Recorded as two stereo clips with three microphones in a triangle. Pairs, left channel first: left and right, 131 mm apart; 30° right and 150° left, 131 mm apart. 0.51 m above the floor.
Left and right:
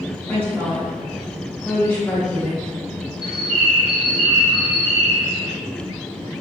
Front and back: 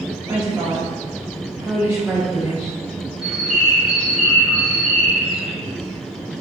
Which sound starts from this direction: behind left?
A woman speaking, at 0.3 s.